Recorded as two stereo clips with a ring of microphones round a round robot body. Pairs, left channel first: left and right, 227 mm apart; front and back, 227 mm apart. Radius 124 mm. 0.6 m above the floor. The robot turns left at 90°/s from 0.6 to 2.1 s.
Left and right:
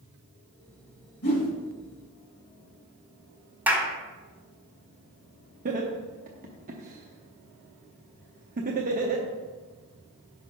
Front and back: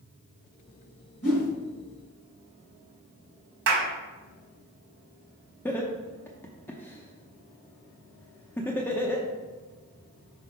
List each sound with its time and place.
1.2 s a whoosh: 45° left, 1.6 m; by 1.5 s 20° left, 1.6 m
3.7 s a clap: 170° right, 1.5 m
5.7 s laughter: 75° right, 0.7 m